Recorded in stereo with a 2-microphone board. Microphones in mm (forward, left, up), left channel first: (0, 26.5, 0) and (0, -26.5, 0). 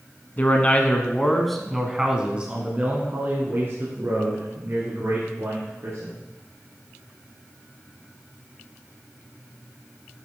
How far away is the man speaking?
About 1.3 m.